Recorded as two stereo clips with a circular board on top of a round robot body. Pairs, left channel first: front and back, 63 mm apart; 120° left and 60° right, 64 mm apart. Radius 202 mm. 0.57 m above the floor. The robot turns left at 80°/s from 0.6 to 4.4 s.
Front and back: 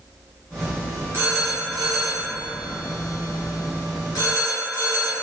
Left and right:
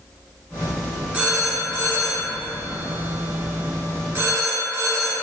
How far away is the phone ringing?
About 1.2 m.